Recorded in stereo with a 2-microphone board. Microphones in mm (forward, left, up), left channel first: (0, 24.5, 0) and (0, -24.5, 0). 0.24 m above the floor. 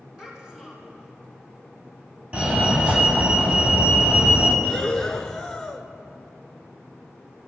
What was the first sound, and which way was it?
A child speaking, 15° right (ahead or behind).